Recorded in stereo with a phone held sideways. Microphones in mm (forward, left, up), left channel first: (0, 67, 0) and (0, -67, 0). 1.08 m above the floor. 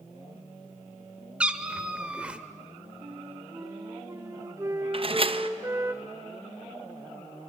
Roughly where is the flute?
Right.